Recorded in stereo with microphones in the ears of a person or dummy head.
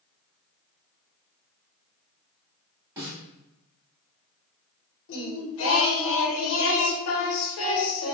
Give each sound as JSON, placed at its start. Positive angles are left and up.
{"t": 3.0, "sound": "a snare drum", "side_deg": -15, "distance_m": 1.5}
{"t": 5.1, "sound": "singing", "side_deg": 70, "distance_m": 0.8}